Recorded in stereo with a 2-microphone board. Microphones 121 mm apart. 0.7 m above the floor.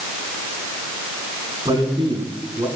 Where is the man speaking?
40° right (ahead or behind), 8 m.